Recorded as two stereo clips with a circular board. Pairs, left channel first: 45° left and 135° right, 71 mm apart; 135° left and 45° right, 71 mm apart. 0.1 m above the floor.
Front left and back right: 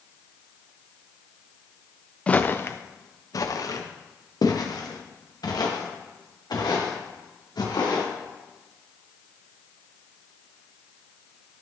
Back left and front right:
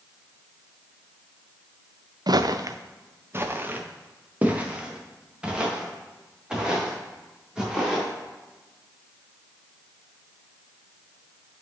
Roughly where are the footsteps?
Ahead right.